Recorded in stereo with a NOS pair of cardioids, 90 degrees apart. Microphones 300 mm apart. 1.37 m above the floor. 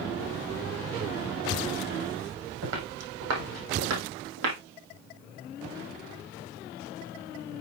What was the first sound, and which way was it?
Footsteps, 60° right.